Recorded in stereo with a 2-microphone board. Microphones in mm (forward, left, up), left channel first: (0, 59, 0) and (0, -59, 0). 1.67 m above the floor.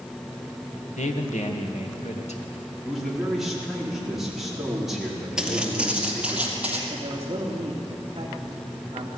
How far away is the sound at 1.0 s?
About 1.8 m.